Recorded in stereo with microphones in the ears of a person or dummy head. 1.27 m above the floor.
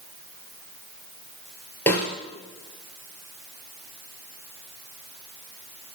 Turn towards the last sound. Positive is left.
turn(degrees=5)  # may be behind; listen again after turning